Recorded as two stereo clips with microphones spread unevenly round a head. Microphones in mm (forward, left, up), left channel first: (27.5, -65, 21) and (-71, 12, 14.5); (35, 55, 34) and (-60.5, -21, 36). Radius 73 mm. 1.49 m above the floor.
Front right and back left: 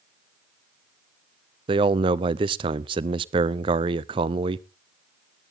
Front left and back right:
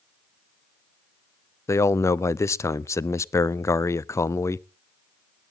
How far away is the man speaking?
About 0.5 m.